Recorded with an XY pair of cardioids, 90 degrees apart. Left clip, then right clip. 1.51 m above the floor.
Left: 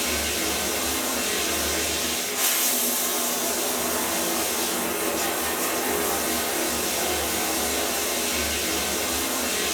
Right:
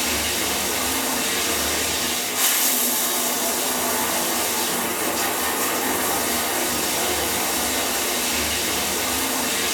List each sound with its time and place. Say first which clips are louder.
0.0 s running water: right 2 dB; 65° right, 0.7 m